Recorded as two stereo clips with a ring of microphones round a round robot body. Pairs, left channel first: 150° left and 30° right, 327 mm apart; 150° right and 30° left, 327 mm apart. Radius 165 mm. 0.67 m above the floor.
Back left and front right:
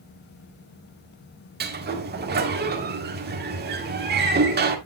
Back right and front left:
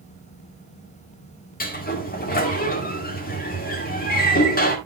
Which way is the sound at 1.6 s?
90° right.